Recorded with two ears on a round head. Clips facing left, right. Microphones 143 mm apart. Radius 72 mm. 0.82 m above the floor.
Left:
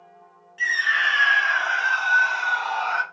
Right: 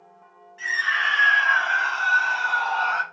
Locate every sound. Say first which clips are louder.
0.6 s a scream: left 1 dB; 35° left (ahead or behind), 5 m; by 3.0 s 10° left (ahead or behind), 3 m